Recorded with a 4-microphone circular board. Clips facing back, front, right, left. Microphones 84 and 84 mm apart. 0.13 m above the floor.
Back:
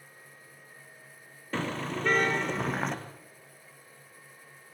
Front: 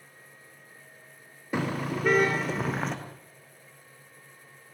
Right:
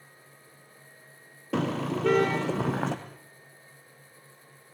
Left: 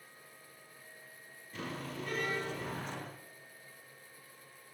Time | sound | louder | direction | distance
1.5 | a car horn | front 3 dB, right 13 dB | 75° right | 3.5 m